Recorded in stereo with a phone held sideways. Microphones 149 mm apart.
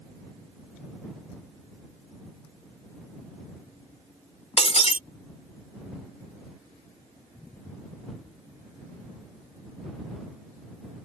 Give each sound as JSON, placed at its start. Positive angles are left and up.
{"t": 4.6, "sound": "breaking glass", "side_deg": 50}